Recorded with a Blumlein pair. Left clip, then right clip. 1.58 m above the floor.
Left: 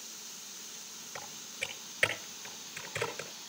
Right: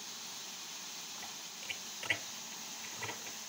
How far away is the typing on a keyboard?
About 6.5 m.